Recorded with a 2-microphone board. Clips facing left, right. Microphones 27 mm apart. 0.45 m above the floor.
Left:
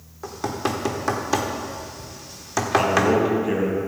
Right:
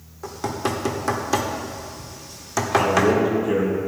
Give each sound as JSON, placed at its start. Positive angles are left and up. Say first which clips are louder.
{"t": 0.2, "sound": "knocking", "louder": "even", "side_deg": 5, "distance_m": 1.0}
{"t": 2.8, "sound": "a man speaking", "louder": "right 1 dB", "side_deg": 20, "distance_m": 3.0}